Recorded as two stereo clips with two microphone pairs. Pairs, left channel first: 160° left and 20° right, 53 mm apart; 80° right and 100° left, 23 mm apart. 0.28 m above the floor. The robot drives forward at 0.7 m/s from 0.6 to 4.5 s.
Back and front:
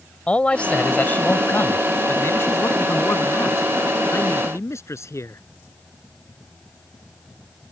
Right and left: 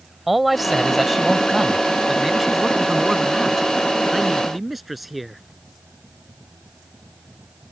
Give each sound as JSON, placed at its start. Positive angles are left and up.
{"t": 0.3, "sound": "a man speaking", "azimuth_deg": 170}